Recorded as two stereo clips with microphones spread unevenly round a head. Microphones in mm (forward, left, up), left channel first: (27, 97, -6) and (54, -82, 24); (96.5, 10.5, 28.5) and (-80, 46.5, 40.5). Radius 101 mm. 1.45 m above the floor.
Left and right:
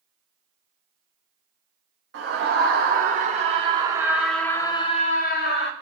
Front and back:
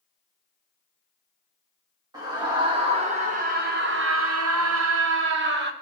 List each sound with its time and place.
2.1 s a scream: 120° right, 2 m; by 5.7 s 140° left, 1.4 m